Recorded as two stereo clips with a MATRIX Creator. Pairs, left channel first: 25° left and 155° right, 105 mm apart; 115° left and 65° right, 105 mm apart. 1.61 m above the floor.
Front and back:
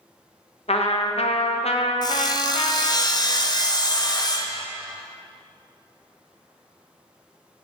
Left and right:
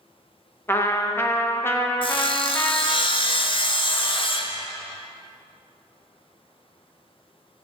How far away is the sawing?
About 0.6 m.